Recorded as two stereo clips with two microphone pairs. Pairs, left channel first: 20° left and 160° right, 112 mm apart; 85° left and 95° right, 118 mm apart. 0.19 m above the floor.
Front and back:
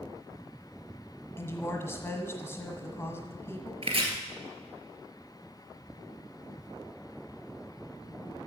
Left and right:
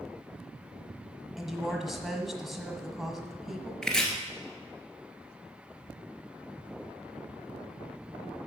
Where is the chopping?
170° left, 1.7 m.